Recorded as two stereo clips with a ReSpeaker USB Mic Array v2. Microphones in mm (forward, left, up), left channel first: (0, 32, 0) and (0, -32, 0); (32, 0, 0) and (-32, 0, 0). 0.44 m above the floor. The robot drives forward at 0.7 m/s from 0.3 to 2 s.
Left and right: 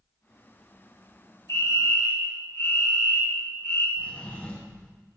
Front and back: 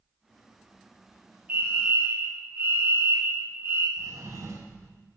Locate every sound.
1.5 s a fire alarm: 120° left, 5 m; by 3.9 s 125° left, 5.5 m
4.0 s a drawer: 150° left, 7 m